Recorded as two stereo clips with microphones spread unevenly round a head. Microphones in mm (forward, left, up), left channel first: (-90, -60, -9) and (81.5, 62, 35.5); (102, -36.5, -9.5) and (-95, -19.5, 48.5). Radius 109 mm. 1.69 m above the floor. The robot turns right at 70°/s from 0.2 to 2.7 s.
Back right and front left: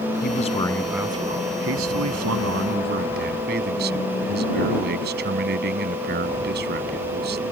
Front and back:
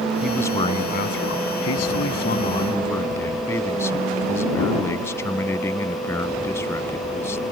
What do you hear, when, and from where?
0.2 s a man speaking: 100° right; by 7.4 s 75° left